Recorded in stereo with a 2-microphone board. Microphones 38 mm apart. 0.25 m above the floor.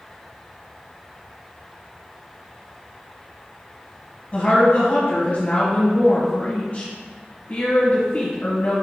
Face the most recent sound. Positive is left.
turn(degrees=40)  # may be behind; listen again after turning